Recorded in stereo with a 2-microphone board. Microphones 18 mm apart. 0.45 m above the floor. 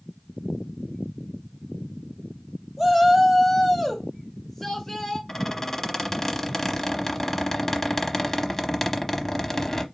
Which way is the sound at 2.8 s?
20° right (ahead or behind).